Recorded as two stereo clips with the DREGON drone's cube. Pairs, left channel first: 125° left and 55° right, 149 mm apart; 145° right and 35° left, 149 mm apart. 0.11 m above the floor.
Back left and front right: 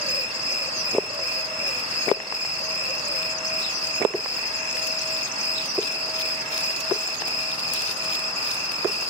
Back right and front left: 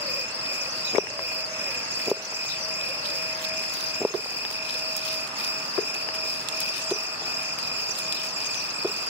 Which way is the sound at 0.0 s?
75° right.